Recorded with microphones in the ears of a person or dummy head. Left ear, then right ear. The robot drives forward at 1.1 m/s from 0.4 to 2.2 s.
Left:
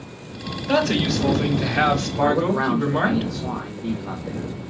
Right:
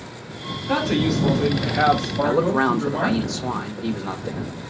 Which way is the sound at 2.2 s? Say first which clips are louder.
Right 1 dB; 75° right (ahead or behind).